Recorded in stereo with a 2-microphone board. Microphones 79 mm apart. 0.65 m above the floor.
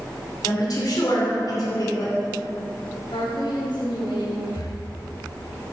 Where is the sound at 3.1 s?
75° left (ahead or behind), 3.5 m.